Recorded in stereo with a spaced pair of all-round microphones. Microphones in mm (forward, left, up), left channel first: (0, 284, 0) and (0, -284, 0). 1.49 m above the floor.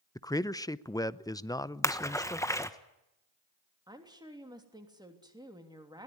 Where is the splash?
5° left (ahead or behind), 1.2 m.